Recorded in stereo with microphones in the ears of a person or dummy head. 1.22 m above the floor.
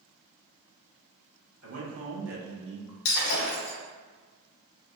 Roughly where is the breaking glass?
Left.